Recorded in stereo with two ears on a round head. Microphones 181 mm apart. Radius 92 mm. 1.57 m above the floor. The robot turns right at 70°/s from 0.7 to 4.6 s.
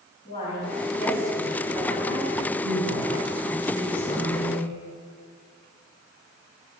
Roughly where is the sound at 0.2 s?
Behind left.